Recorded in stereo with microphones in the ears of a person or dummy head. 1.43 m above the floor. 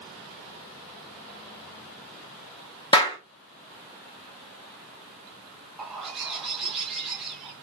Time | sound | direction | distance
2.9 | a clap | 25° left (ahead or behind) | 2.5 m
5.8 | a bird | 10° right (ahead or behind) | 2.5 m